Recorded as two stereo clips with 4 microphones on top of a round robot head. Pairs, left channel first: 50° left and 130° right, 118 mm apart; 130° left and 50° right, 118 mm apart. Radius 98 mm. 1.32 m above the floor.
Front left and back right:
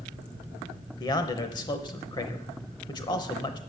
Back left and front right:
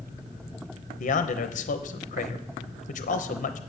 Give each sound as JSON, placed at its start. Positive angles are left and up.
{"t": 1.0, "sound": "a man speaking", "azimuth_deg": 110, "distance_m": 0.8}